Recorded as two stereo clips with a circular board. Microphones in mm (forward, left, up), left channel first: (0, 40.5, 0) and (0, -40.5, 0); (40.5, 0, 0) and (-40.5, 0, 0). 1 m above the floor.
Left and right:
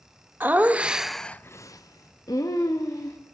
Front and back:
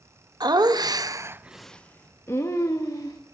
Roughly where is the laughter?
Behind right.